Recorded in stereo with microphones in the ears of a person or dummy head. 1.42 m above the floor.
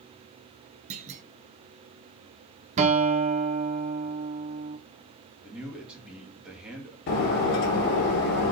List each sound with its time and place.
0.9 s a clunk: 40° right (ahead or behind), 0.8 m
2.8 s a guitar: 35° right (ahead or behind), 0.9 m
5.4 s a man speaking: 5° right (ahead or behind), 2.5 m
7.1 s breaking glass: 40° left (ahead or behind), 1.8 m